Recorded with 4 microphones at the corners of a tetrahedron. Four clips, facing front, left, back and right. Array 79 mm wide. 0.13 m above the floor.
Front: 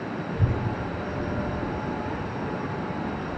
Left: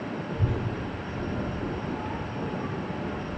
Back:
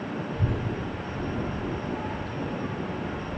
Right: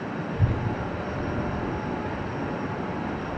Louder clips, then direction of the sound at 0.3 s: Right 2 dB, front 3 dB; 25° right.